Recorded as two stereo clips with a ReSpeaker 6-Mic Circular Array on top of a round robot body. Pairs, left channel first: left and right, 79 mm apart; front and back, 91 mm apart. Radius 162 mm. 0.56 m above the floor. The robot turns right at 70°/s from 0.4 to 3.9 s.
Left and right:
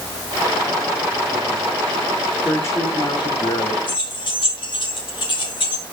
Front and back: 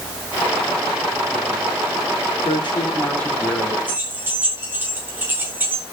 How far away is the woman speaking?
About 2 m.